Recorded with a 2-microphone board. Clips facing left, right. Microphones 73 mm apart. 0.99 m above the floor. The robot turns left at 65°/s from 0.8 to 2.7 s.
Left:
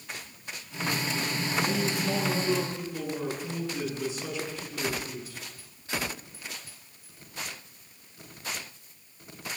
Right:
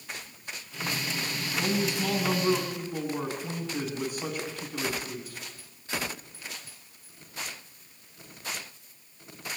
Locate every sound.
1.6 s a man speaking: 55° right, 9.5 m; by 5.4 s 130° right, 9.5 m